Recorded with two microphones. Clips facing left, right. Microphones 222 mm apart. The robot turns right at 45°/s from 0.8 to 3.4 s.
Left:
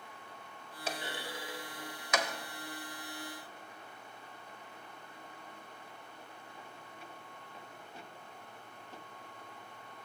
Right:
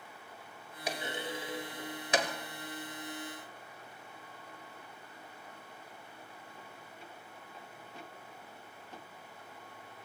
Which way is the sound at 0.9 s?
15° right (ahead or behind).